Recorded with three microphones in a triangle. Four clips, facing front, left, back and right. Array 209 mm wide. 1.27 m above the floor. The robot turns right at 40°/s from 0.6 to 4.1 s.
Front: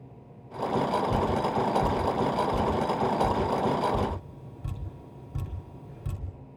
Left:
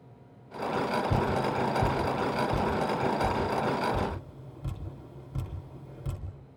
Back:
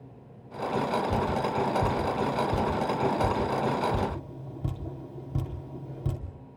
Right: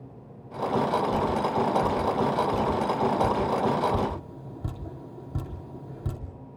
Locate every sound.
1.1 s dripping: 95° left, 3 m; by 6.2 s 145° right, 3 m